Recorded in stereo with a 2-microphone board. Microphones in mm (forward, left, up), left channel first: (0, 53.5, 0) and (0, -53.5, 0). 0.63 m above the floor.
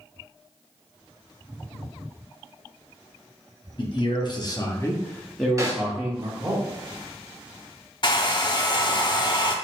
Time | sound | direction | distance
3.8 | a man speaking | 50° left (ahead or behind) | 1.0 m
5.6 | a snare drum | 30° right (ahead or behind) | 1.1 m
8.0 | a hair dryer | 45° left (ahead or behind) | 0.5 m